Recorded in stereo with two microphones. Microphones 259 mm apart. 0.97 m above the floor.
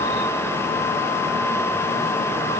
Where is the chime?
I don't hear a chime.